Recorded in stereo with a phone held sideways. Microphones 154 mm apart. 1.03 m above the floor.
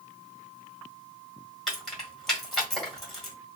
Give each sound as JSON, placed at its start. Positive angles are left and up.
{"t": 1.7, "sound": "keys jangling", "side_deg": 0, "distance_m": 1.3}